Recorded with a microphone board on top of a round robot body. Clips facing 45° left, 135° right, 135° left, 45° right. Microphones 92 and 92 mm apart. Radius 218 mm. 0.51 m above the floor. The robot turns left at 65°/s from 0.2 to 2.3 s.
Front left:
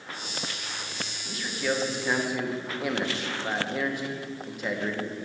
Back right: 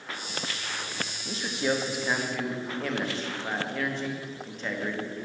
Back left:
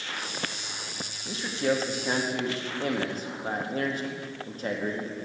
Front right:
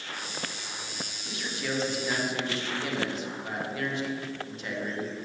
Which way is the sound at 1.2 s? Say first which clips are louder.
Back right 1 dB, back left 7 dB; 170° right.